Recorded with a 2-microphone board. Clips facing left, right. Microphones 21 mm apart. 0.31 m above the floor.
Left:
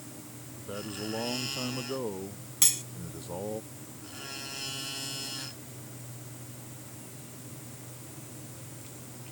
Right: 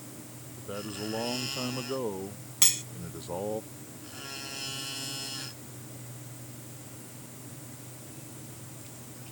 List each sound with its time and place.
0.6 s a man speaking: 5° right (ahead or behind); by 3.6 s 20° right (ahead or behind)
2.6 s cutlery clinking: 15° right (ahead or behind)